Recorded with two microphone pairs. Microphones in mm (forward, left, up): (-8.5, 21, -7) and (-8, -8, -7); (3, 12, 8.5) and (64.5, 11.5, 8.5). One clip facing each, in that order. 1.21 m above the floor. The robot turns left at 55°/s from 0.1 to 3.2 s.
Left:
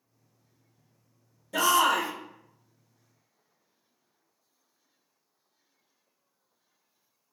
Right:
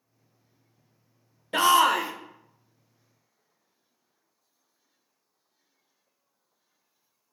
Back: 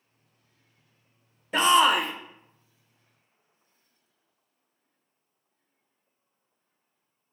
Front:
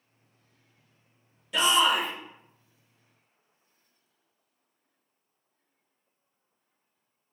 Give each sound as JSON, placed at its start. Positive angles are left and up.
{"t": 1.5, "sound": "a shout", "azimuth_deg": -125, "distance_m": 0.5}